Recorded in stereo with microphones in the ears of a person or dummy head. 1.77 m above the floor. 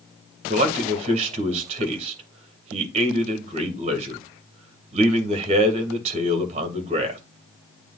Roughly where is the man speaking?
Right.